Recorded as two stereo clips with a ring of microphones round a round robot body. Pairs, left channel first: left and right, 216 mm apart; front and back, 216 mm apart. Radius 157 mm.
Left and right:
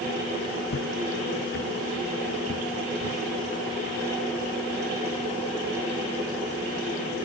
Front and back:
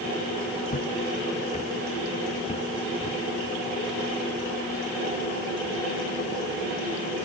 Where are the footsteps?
50° left, 1.5 m; by 3.2 s 60° left, 4.5 m.